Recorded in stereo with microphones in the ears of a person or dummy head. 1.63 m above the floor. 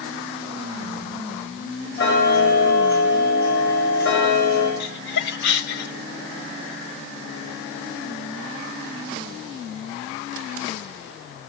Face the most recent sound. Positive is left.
turn(degrees=60)  # may be behind; listen again after turning